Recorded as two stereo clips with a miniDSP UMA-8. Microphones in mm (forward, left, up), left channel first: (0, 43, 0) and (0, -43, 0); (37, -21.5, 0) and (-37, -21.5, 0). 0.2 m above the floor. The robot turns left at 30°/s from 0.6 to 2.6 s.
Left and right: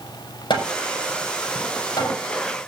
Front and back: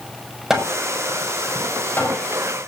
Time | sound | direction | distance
0.5 | hammering | 95° left | 7 m